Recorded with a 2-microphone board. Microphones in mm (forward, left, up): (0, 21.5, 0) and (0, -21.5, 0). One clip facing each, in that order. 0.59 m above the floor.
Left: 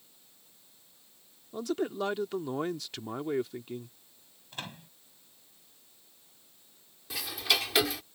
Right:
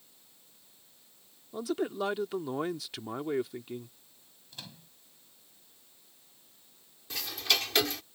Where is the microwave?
45° left (ahead or behind).